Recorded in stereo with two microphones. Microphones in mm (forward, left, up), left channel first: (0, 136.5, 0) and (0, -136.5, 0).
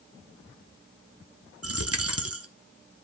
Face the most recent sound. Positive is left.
turn(degrees=-60)  # may be behind; listen again after turning